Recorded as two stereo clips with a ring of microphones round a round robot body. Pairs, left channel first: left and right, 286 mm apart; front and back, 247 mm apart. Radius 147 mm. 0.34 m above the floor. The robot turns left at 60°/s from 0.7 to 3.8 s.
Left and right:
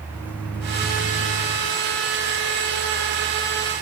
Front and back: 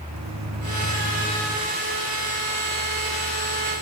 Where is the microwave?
175° left, 2.5 m; by 1.6 s 120° left, 2.5 m.